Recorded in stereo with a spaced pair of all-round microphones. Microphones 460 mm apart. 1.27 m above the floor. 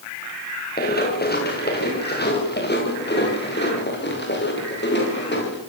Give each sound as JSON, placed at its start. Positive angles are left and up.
{"t": 0.8, "sound": "running footsteps", "side_deg": 20, "distance_m": 7.0}